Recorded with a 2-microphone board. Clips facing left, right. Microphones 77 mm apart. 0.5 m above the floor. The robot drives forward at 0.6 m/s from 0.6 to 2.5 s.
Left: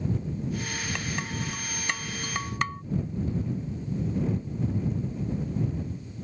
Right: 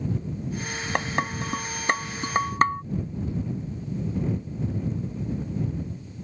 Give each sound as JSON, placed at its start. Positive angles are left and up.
{"t": 0.9, "sound": "dishes clattering", "side_deg": -50}